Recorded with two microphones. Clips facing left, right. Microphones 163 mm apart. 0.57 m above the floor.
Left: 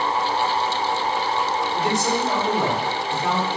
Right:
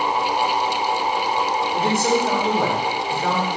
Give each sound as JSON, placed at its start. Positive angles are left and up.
{"t": 1.7, "sound": "a man speaking", "side_deg": -50, "distance_m": 1.5}